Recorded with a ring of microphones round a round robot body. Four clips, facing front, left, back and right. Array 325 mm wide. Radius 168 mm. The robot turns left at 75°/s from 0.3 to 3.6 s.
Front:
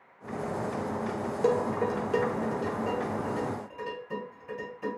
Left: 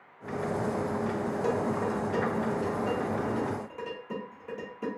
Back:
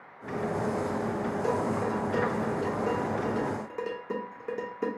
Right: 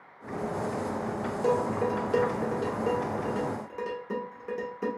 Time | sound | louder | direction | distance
1.4 | dishes clattering | right 4 dB, front 4 dB | straight ahead | 1.4 m